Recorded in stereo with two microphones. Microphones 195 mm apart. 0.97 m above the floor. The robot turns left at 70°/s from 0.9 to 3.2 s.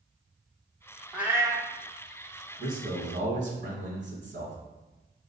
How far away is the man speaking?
About 1.1 m.